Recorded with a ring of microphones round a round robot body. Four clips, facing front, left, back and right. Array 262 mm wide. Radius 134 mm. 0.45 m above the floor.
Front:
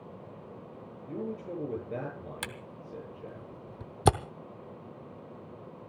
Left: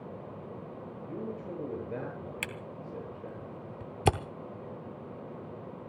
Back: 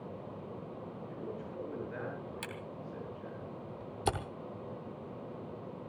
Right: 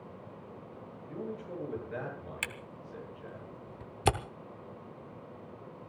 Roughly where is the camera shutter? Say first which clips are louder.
Left 3 dB, even; ahead left.